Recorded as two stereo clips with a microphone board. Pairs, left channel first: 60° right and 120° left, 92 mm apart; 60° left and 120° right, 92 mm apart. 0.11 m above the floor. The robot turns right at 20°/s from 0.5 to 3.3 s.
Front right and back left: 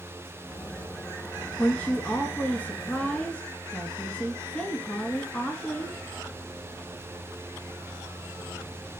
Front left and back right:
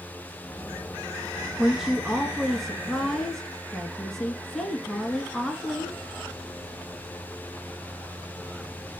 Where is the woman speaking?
55° right, 1.3 m; by 6.0 s 20° right, 1.3 m.